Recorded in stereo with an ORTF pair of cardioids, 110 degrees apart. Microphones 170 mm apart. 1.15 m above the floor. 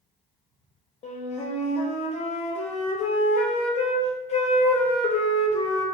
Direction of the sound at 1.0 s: 40° left.